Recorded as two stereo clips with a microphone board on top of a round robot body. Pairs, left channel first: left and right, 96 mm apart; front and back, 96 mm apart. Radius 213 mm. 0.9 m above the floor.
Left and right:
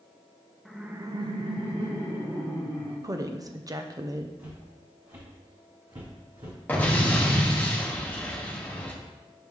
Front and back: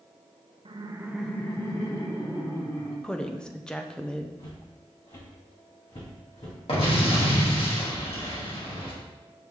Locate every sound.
0.7 s laughter: straight behind, 0.9 m; by 2.9 s 45° right, 3 m
3.0 s a woman speaking: 75° right, 0.9 m
4.4 s footsteps: 25° right, 3 m; by 6.6 s 50° right, 2.5 m
6.7 s an explosion: 20° left, 2.0 m